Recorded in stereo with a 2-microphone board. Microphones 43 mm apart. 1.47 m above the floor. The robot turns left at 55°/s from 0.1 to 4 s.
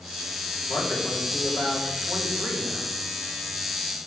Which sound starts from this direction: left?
A man speaking, at 0.7 s.